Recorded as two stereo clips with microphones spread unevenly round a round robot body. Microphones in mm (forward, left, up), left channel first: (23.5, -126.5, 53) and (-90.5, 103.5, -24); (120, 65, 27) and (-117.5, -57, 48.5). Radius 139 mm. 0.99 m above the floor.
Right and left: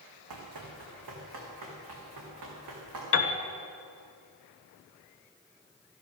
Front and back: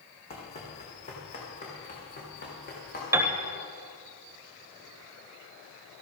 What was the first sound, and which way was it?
Running footsteps, 100° left.